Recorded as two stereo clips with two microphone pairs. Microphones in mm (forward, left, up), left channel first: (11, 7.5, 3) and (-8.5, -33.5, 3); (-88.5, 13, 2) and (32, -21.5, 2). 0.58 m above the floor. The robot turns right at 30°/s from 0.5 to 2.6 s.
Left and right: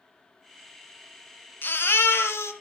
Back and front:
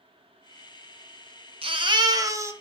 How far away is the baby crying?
About 1.4 m.